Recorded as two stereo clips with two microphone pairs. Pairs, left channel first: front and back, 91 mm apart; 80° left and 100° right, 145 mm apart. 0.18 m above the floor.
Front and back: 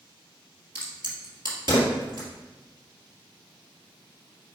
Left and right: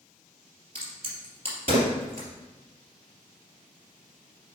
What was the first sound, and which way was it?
A crack, 145° right.